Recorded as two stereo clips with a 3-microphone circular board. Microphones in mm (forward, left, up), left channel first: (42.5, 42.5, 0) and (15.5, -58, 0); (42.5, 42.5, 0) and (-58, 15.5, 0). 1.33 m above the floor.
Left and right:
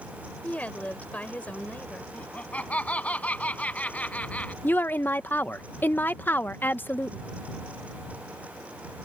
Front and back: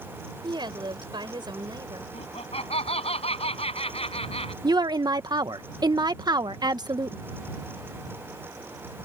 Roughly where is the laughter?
Ahead.